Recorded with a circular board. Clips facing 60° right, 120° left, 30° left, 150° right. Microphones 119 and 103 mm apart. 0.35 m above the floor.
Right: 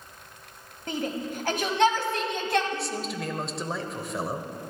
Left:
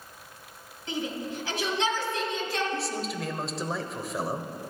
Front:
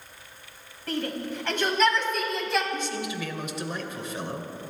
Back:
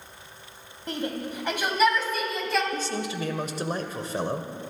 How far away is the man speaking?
About 1.2 m.